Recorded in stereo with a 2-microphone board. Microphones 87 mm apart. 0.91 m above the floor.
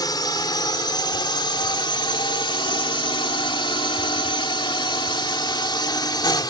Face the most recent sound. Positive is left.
turn(degrees=50)  # may be behind; listen again after turning